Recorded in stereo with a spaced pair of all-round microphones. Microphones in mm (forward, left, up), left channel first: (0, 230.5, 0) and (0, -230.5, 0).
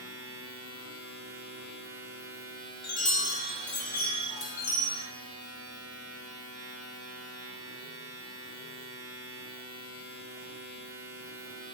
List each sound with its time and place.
0.0 s a machine running: 50° right (ahead or behind), 0.9 m
2.8 s a chime: 70° left (ahead or behind), 0.6 m